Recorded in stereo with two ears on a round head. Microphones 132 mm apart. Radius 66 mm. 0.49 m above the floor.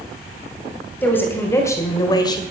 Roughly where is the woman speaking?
Centre.